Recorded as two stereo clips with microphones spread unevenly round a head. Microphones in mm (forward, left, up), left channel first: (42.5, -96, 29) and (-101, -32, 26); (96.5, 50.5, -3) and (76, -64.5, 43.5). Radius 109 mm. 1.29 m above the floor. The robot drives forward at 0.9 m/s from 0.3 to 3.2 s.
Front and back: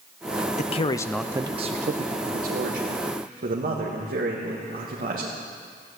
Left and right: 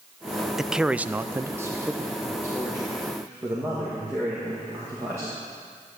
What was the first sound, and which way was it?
A man speaking, 5° left.